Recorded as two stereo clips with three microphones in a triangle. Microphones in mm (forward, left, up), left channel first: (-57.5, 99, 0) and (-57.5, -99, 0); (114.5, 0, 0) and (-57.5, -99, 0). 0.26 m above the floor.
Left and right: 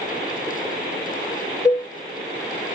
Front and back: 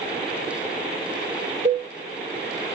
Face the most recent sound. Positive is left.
turn(degrees=165)